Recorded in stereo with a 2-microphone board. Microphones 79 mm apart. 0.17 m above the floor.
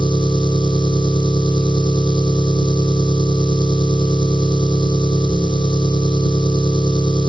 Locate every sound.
0.0 s an engine running: 75° left (ahead or behind), 2 m